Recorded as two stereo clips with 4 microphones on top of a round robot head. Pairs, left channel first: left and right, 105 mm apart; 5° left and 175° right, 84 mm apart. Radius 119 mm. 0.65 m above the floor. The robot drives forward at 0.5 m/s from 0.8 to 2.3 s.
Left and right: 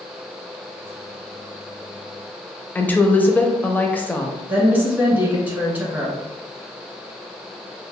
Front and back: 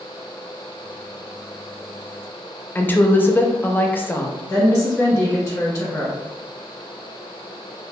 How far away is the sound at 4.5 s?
About 1.0 m.